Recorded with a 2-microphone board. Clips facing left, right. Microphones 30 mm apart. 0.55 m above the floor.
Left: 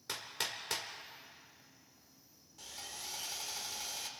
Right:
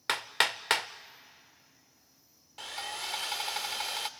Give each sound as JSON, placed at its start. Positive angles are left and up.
{"t": 0.1, "sound": "hammering", "side_deg": -75, "distance_m": 0.6}
{"t": 2.6, "sound": "sawing", "side_deg": -70, "distance_m": 0.8}